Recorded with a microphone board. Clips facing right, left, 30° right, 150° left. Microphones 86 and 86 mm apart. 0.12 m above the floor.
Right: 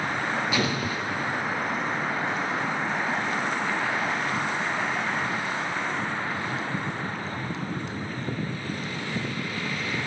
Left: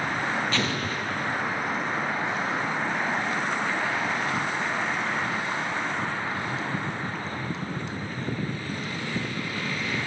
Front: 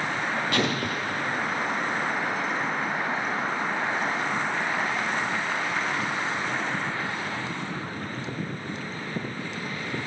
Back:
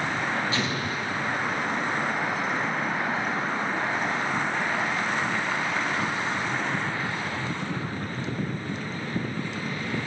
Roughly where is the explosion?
Ahead.